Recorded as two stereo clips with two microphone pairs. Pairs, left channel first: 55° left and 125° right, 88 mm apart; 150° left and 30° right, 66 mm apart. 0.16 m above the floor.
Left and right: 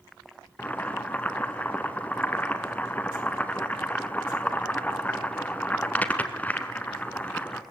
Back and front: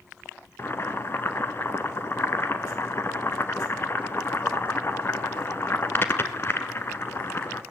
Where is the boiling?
120° left, 1.2 m.